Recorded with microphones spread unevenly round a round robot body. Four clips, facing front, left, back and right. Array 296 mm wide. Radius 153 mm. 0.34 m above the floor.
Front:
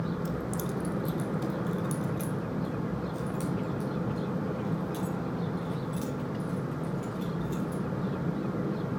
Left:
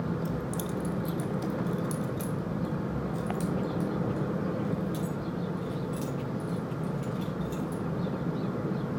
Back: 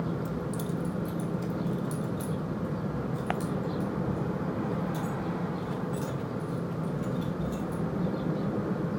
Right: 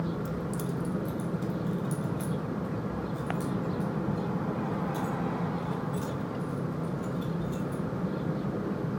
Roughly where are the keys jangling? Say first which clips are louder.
Even, even; ahead left.